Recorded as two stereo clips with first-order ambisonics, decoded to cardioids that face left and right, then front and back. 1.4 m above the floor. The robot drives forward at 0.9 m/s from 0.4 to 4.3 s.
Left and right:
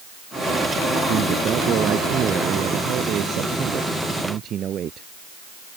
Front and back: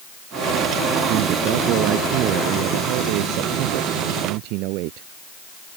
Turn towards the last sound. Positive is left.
turn(degrees=-150)